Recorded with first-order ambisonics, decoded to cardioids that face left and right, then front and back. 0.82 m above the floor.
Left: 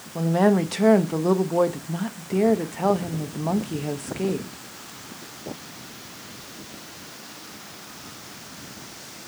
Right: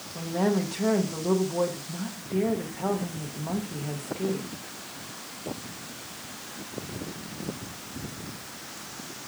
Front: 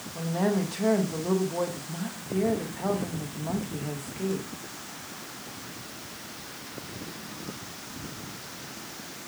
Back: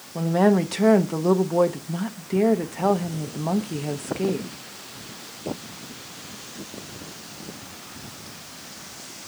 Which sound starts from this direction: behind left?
A woman speaking, at 0.1 s.